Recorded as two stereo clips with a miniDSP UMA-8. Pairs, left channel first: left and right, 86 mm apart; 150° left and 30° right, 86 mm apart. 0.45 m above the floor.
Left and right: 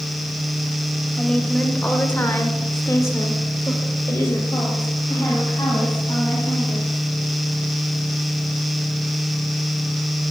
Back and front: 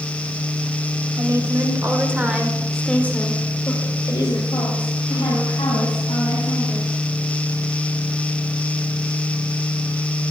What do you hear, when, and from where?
1.2 s a woman speaking: 10° left, 2.5 m; by 6.9 s 155° left, 5 m